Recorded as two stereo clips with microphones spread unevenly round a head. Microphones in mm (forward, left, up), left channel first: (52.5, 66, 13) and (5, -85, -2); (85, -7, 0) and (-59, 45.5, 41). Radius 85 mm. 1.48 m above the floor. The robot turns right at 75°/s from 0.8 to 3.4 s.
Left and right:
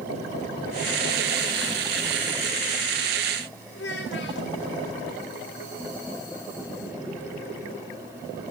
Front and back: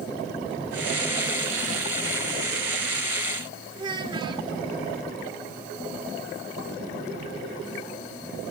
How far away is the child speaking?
About 3 m.